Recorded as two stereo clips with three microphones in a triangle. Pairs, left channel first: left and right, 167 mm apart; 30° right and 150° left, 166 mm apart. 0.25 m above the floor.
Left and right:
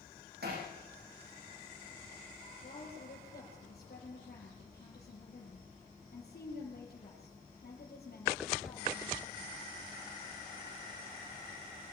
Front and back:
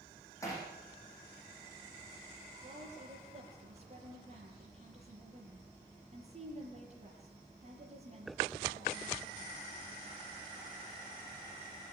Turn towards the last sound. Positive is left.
turn(degrees=110)